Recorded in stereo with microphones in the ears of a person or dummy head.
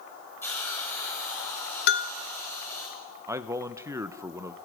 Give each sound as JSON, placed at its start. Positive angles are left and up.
{"t": 0.4, "sound": "a hiss", "side_deg": 15, "distance_m": 8.5}
{"t": 1.9, "sound": "a bell", "side_deg": 65, "distance_m": 1.2}
{"t": 3.3, "sound": "a man speaking", "side_deg": -15, "distance_m": 1.1}